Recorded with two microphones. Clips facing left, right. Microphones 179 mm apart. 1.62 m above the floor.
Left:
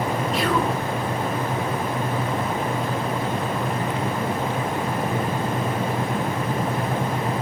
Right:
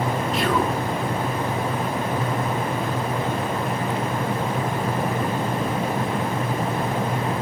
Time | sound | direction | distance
0.3 | whispering | centre (ahead or behind) | 1.7 m